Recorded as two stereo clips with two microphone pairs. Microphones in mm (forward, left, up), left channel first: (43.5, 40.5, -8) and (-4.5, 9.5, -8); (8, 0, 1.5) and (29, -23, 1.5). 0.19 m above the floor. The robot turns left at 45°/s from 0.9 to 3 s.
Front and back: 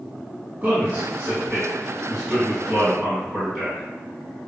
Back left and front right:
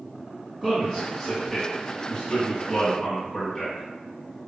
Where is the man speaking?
170° right, 1.8 m; by 3.9 s 95° left, 1.8 m.